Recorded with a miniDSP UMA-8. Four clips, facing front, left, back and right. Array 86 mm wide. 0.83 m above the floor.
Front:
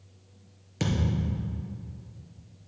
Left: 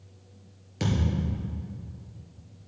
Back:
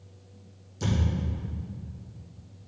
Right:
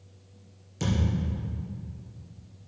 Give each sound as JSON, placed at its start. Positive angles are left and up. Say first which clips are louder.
{"t": 0.8, "sound": "a thud", "louder": "left 1 dB, front 1 dB", "azimuth_deg": 20, "distance_m": 3.0}